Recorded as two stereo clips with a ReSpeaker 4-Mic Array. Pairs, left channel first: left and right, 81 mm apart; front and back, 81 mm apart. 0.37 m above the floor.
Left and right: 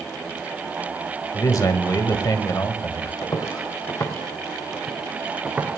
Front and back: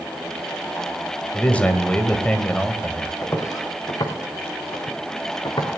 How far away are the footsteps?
About 3.5 m.